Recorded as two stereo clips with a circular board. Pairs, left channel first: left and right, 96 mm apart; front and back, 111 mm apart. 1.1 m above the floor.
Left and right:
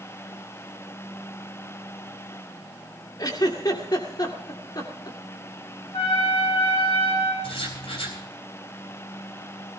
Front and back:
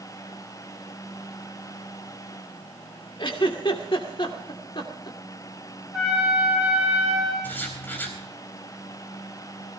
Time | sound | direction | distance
3.2 | a giggle | 45° left | 2 m
5.9 | a trumpet | 95° left | 7 m
7.4 | writing | 75° left | 4 m